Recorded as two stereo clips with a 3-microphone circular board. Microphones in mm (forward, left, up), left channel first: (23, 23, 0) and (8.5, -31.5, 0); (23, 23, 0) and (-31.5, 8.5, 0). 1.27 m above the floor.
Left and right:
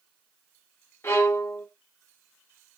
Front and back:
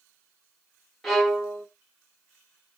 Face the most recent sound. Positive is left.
turn(degrees=95)